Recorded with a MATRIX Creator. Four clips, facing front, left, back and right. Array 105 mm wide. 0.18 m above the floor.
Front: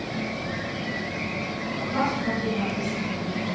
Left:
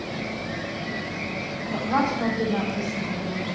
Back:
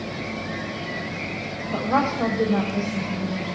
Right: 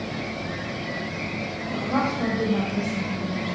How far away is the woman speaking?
About 6.5 m.